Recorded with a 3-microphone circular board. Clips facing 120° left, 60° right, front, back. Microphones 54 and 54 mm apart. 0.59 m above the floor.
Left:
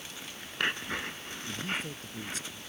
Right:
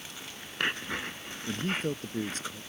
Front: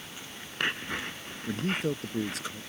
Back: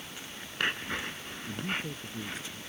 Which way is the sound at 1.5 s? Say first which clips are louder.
Right 5 dB, front 6 dB; 15° right.